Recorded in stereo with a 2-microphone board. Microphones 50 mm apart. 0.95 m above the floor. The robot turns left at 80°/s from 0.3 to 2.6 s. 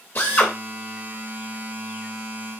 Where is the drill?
40° left (ahead or behind), 1.3 m; by 0.5 s 30° left (ahead or behind), 1.3 m.